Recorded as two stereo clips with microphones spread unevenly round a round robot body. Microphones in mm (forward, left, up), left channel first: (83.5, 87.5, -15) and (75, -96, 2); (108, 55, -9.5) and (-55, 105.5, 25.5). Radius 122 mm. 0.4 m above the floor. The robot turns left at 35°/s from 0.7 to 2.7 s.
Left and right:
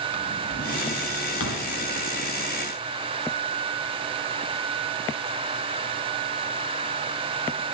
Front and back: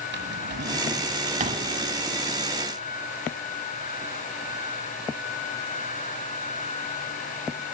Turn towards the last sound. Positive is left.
turn(degrees=70)